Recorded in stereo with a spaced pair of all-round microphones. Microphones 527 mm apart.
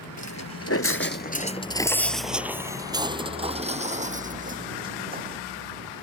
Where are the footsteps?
30° left (ahead or behind); by 5.4 s 15° right (ahead or behind).